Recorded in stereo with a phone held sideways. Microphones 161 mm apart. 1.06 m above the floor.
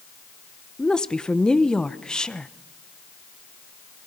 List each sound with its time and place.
0.8 s a woman speaking: 5° left (ahead or behind), 0.7 m